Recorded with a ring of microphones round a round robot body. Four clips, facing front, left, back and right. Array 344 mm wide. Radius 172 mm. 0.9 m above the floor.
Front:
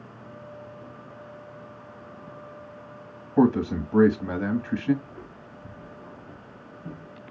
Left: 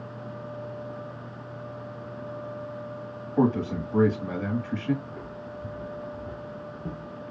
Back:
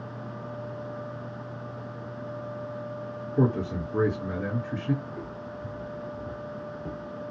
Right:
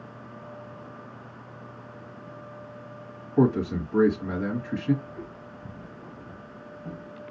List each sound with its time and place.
3.4 s a man speaking: 10° left, 1.9 m
5.0 s footsteps: 120° left, 2.5 m